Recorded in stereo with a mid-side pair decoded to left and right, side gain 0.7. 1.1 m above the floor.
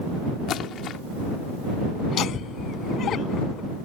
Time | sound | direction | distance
0.5 | a splash | 45° left | ?
2.1 | laughter | 40° left | ?